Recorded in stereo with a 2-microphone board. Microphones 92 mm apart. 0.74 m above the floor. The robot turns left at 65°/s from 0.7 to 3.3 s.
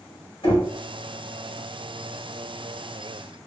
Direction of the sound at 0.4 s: 70° left (ahead or behind).